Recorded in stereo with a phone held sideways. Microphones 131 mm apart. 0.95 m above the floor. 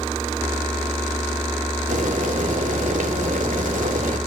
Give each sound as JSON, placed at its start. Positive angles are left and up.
{"t": 1.9, "sound": "boiling", "side_deg": -80, "distance_m": 1.9}